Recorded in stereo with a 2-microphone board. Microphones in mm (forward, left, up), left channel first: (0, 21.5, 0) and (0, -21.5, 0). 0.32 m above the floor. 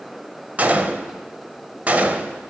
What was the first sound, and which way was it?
A gunshot, 35° right (ahead or behind).